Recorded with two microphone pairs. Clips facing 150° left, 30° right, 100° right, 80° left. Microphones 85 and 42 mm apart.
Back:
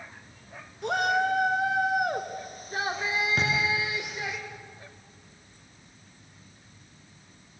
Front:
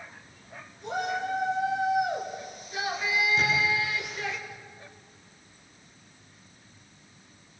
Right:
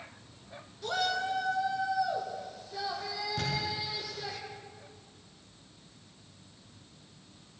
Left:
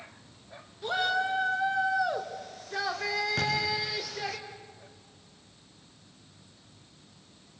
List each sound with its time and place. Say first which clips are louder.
0.8 s a shout: back 5 dB, left 3 dB; 155° left, 2.5 m; by 4.4 s 75° left, 4 m
3.4 s a thud: front 1 dB, left 4 dB; 120° left, 9 m